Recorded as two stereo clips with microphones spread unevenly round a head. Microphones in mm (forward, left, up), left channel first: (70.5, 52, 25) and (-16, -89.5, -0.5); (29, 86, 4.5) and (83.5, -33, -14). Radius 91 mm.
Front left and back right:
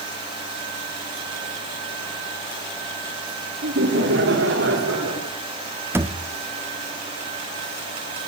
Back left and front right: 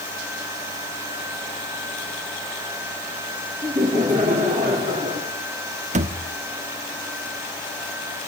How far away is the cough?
No cough in this recording.